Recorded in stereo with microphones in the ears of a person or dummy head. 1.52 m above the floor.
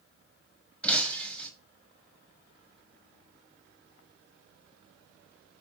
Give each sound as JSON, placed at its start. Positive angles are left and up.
{"t": 0.8, "sound": "breaking glass", "side_deg": 5, "distance_m": 6.0}